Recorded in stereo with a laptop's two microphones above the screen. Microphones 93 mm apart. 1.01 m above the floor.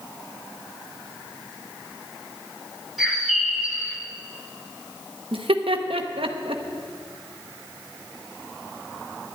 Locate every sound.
3.0 s a bird: centre (ahead or behind), 3 m
5.3 s laughter: 75° right (ahead or behind), 1.0 m